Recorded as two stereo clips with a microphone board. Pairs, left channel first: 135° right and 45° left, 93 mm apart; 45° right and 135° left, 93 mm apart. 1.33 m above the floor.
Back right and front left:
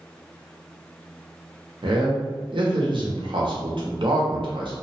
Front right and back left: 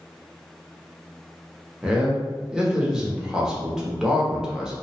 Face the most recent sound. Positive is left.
turn(degrees=55)